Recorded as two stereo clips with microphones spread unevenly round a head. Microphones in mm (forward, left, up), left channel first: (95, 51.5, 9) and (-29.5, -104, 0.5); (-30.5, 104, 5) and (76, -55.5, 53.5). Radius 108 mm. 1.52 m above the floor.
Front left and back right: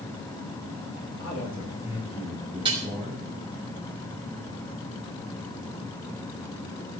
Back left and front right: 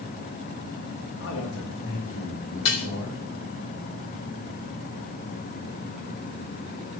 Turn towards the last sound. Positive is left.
turn(degrees=160)